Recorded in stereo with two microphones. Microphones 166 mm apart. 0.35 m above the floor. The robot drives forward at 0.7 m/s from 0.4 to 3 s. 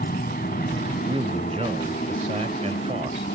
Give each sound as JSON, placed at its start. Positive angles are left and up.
{"t": 0.0, "sound": "an aircraft", "side_deg": 65}
{"t": 1.1, "sound": "a man speaking", "side_deg": -35}